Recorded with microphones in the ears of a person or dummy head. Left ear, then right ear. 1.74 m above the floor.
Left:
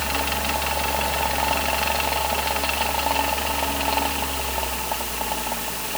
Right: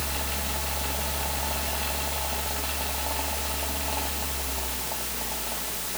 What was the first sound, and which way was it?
A fan, 50° left (ahead or behind).